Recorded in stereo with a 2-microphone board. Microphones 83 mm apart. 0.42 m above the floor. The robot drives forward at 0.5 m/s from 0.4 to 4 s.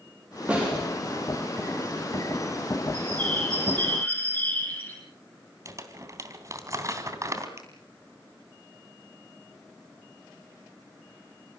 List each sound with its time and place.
0.5 s a snare drum: 15° right (ahead or behind), 9.5 m
2.9 s a bird: 15° left (ahead or behind), 9.5 m; by 5.0 s 20° left (ahead or behind), 9 m
5.7 s crumpling: 40° right (ahead or behind), 3.5 m
7.6 s a finger snap: 35° right (ahead or behind), 8 m